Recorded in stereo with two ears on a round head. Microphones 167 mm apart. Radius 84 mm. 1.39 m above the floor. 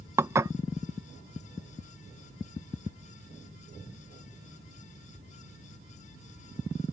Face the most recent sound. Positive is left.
turn(degrees=-15)  # may be behind; listen again after turning